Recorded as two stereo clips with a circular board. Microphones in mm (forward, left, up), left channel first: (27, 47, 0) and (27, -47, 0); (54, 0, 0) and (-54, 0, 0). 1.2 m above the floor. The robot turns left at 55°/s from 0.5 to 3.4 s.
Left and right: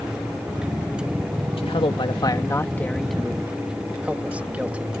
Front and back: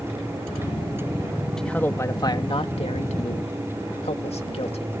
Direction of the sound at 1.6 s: 85° left.